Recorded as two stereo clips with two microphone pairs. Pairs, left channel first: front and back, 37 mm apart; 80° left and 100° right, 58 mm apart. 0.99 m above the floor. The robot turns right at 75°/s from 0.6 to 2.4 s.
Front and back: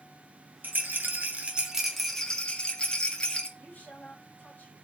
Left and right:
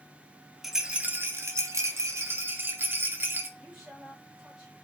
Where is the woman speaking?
30° right, 2 m.